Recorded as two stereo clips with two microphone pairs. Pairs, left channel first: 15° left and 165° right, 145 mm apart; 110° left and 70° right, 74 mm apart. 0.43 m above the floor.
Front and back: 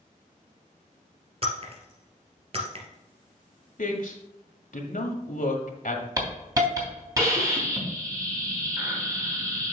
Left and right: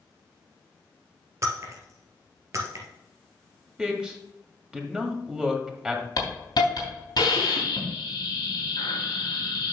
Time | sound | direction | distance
1.4 | breaking glass | 120° right | 2 m
3.8 | a man speaking | 5° left | 1.8 m
6.2 | a hiss | 130° left | 3 m